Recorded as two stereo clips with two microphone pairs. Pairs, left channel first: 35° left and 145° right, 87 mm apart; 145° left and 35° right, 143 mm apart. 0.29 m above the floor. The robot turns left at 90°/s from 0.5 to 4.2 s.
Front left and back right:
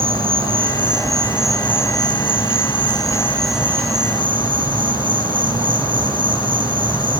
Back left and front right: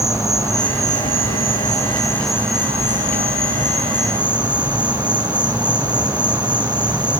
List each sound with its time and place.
0.0 s an insect: 145° right, 1.3 m; by 7.2 s 115° right, 1.3 m